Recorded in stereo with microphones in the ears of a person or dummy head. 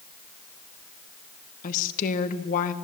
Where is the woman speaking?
40° left (ahead or behind), 1.9 m.